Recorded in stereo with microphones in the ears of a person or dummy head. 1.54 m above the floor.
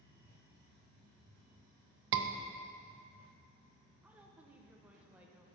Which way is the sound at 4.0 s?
10° right (ahead or behind).